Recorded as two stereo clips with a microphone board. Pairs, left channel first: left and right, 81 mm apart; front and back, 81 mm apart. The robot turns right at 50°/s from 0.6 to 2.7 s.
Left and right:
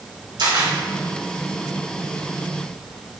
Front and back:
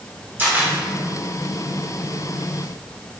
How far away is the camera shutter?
About 2.5 m.